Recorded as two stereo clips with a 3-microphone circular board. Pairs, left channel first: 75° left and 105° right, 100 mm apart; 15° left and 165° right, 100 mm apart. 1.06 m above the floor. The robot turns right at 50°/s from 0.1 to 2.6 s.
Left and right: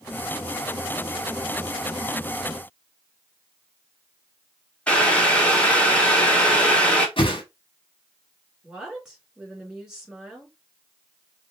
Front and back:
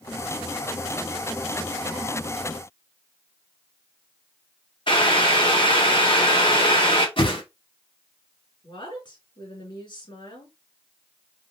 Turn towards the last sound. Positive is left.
turn(degrees=-20)